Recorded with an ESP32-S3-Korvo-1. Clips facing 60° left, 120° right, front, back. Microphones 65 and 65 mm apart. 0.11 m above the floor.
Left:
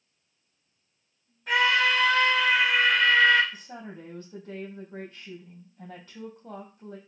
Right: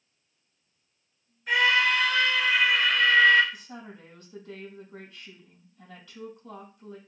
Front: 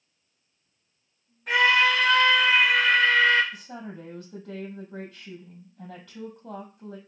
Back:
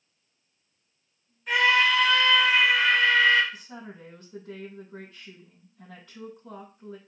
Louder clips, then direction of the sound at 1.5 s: Even, front 1 dB; 40° left.